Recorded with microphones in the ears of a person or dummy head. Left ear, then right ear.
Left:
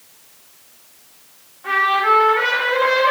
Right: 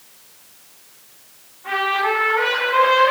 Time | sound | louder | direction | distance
1.6 | a trumpet | left 4 dB | 75° left (ahead or behind) | 1.1 m